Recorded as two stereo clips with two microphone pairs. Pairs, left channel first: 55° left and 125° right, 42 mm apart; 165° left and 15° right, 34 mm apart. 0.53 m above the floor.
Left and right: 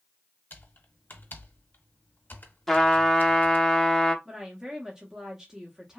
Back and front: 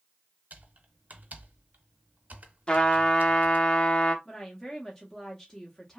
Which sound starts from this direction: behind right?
A woman speaking, at 4.2 s.